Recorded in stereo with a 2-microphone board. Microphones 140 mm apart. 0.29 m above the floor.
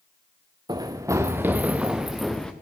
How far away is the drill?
No drill in this recording.